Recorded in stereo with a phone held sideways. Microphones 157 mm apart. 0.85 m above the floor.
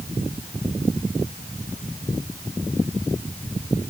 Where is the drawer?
No drawer in this recording.